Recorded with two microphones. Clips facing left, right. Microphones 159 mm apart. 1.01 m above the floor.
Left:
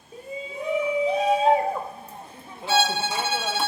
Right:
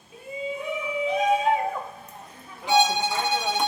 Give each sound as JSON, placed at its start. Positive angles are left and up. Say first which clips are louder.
{"t": 0.1, "sound": "a shout", "louder": "right 2 dB", "side_deg": 35, "distance_m": 3.5}
{"t": 2.7, "sound": "a violin", "louder": "right 2 dB", "side_deg": -15, "distance_m": 0.6}